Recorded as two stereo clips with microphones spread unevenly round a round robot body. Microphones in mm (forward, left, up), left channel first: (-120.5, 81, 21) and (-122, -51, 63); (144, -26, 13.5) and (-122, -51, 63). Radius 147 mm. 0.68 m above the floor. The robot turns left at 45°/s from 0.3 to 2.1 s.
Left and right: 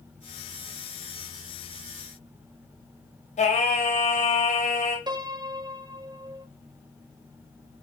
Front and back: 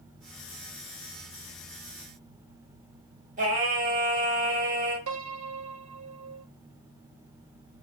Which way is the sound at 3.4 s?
120° left.